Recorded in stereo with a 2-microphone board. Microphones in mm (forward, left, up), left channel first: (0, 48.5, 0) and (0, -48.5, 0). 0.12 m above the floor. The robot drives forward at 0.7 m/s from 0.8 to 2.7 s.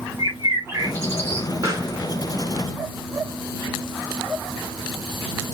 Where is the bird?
25° right (ahead or behind), 1.1 m.